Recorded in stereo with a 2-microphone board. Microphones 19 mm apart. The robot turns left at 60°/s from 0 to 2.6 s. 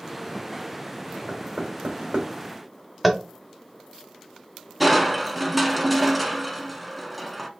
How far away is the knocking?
About 1.6 m.